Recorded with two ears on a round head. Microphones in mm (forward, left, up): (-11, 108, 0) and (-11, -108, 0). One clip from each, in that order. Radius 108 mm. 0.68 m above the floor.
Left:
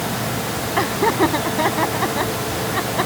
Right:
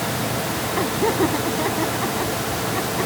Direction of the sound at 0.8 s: 35° left (ahead or behind).